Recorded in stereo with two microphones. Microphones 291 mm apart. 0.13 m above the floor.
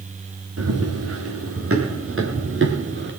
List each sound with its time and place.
0.6 s running footsteps: 55° right (ahead or behind), 4.5 m; by 3.1 s 40° right (ahead or behind), 4.5 m